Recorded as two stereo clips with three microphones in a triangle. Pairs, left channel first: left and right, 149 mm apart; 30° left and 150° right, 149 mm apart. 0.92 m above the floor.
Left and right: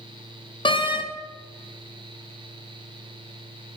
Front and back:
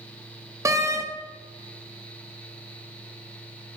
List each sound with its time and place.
0.7 s a door slam: 145° left, 0.6 m